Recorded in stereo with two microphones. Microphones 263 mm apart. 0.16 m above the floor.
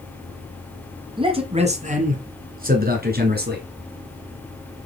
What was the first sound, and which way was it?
A man speaking, 20° right (ahead or behind).